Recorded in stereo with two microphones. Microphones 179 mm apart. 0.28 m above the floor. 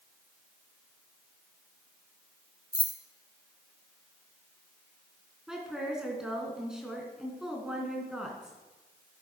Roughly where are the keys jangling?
Left.